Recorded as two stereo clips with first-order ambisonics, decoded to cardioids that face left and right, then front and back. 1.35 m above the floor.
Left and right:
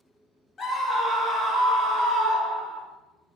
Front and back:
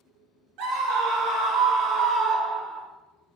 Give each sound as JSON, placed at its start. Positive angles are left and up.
{"t": 0.6, "sound": "a scream", "azimuth_deg": 160, "distance_m": 0.6}